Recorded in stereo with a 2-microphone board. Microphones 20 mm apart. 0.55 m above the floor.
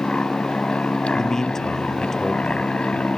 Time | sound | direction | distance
0.0 | an aircraft | 65° left (ahead or behind) | ?
1.1 | a man speaking | 25° left (ahead or behind) | ?